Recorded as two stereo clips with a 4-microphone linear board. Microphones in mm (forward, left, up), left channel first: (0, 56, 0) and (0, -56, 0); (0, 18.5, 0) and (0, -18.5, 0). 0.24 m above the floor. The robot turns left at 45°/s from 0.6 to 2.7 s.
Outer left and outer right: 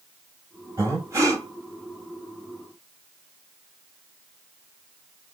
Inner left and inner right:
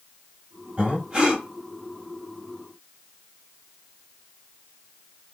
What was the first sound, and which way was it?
Breathing, 30° right (ahead or behind).